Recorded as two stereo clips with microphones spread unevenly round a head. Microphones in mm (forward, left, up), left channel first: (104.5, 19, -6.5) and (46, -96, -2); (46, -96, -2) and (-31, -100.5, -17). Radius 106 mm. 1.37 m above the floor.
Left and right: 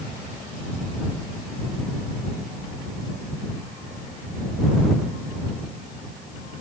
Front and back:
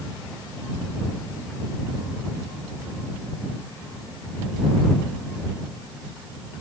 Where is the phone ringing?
I don't hear a phone ringing.